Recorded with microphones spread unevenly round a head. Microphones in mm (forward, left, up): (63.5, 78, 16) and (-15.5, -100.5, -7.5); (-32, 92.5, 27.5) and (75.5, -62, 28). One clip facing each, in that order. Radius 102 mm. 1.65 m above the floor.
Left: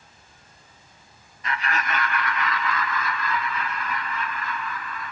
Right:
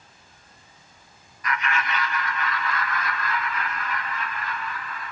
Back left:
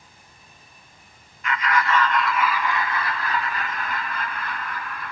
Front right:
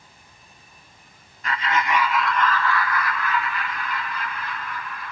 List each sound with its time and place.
1.4 s laughter: straight ahead, 1.6 m; by 5.1 s 90° left, 4 m